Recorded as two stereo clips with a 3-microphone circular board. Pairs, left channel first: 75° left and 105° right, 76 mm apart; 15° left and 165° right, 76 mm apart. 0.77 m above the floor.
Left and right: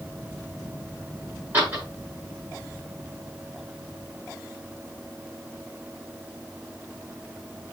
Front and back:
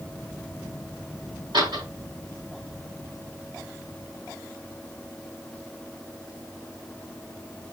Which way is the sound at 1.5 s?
170° right.